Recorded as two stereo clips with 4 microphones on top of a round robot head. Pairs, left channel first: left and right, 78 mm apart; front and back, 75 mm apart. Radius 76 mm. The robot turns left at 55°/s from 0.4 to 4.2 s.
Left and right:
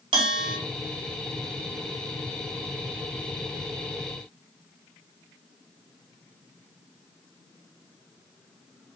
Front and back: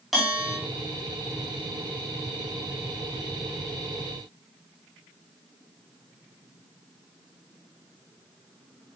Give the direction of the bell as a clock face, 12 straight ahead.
3 o'clock.